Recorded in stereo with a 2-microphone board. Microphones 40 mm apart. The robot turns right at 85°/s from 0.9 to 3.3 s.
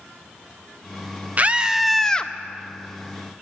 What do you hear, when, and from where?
1.4 s a scream: 45° right, 0.5 m; by 2.3 s 35° left, 0.5 m